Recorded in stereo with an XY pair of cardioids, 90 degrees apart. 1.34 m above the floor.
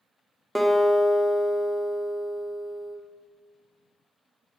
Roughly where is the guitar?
Ahead.